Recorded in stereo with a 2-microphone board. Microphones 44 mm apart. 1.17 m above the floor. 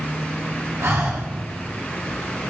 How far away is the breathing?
About 1.5 m.